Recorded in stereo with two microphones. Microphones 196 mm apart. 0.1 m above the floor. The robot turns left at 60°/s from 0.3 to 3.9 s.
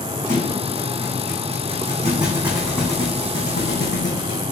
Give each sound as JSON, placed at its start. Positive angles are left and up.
{"t": 0.3, "sound": "a thud", "azimuth_deg": -40, "distance_m": 2.5}